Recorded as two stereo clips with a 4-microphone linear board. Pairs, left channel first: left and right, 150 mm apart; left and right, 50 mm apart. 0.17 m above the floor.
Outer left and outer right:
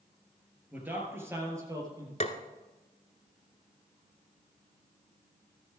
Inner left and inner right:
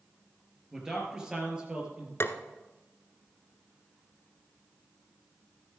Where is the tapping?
50° left (ahead or behind), 1.0 m.